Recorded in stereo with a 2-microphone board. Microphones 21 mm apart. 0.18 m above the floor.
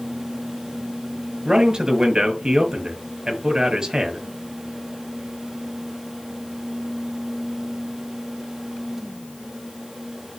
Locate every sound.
1.4 s a man speaking: 40° right (ahead or behind), 4 m